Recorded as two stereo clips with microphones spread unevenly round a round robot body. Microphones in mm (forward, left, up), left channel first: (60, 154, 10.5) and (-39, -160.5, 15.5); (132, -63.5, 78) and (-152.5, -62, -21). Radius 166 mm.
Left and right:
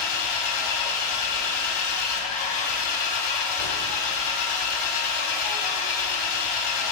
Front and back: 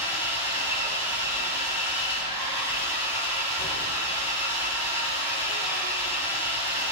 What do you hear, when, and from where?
0.0 s an engine running: 75° left, 1.0 m